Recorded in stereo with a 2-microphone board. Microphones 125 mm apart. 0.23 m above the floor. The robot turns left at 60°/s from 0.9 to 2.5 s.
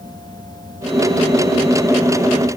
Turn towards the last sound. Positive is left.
No sound to turn to.